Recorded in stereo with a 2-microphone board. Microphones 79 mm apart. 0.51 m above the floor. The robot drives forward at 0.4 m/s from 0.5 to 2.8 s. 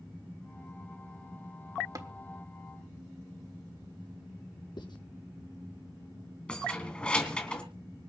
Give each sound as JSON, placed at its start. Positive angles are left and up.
{"t": 1.9, "sound": "tapping", "side_deg": -45, "distance_m": 1.4}
{"t": 4.8, "sound": "writing", "side_deg": 70, "distance_m": 5.5}
{"t": 6.5, "sound": "keys jangling", "side_deg": 15, "distance_m": 2.5}